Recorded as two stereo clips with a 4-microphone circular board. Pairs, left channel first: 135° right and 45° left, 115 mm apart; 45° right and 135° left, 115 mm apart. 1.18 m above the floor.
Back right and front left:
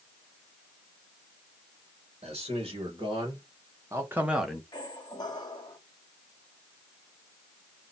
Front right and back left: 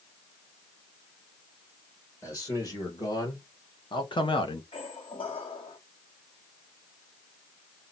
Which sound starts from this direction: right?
A squeak, at 4.7 s.